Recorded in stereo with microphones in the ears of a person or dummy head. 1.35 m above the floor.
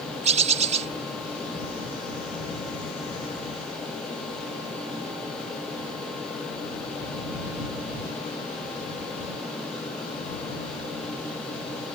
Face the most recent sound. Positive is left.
turn(degrees=-40)  # may be behind; listen again after turning